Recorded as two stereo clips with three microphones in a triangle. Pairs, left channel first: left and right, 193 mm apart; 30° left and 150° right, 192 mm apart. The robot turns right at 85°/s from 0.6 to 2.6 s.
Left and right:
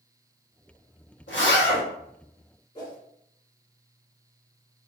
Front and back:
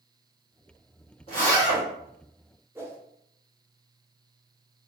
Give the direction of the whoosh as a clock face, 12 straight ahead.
7 o'clock.